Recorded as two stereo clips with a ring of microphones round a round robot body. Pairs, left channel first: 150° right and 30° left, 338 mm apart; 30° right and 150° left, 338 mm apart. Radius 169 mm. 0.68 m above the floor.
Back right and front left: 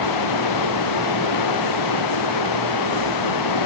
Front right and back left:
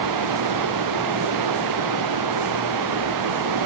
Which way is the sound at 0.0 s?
Straight behind.